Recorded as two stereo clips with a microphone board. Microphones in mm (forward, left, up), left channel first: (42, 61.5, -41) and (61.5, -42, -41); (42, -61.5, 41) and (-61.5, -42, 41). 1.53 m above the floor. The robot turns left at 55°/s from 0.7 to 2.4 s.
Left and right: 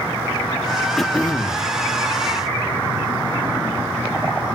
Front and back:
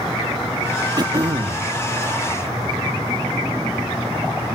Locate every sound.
1.0 s throat clearing: 175° right, 1.2 m; by 1.7 s 145° left, 1.2 m